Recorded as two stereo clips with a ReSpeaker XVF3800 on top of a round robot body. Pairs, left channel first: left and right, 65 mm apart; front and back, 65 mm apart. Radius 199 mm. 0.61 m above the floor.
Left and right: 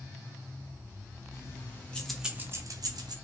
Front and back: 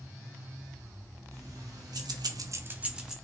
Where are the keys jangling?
140° left, 0.9 m; by 3.1 s 100° right, 0.7 m.